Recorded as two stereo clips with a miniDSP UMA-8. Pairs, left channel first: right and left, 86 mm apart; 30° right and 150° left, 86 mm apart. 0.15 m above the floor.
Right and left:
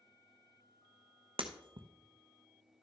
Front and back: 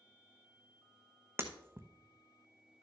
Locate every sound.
1.4 s breaking glass: 85° left, 0.9 m